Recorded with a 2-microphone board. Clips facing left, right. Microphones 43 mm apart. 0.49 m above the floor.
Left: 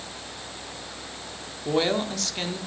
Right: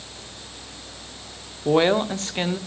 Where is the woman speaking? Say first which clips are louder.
Right 6 dB; 30° right (ahead or behind), 0.7 m.